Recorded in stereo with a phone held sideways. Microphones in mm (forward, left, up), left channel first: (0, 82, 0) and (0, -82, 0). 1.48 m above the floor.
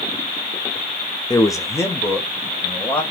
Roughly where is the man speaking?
Left.